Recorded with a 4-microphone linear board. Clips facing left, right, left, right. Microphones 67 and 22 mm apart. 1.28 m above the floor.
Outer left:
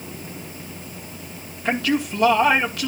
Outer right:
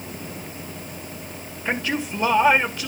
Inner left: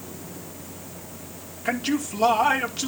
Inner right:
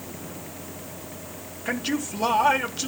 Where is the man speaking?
65° left (ahead or behind), 4 m.